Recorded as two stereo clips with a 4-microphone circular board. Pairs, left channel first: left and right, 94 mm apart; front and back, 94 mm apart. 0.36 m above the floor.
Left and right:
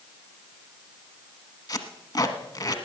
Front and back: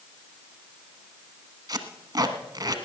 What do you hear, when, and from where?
1.7 s tape being pulled: 135° left, 1.2 m